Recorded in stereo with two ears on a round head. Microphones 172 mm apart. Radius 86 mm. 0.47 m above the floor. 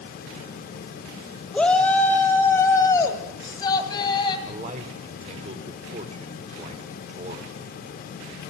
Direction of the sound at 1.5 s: 5° left (ahead or behind).